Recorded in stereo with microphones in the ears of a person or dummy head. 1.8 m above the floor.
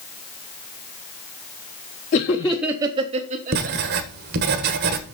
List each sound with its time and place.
2.1 s laughter: 35° left (ahead or behind), 0.6 m; by 4.0 s 55° right (ahead or behind), 1.6 m
3.5 s writing: 60° right (ahead or behind), 1.3 m